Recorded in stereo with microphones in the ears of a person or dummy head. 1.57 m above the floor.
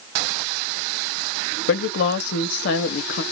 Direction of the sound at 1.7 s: 45° left (ahead or behind).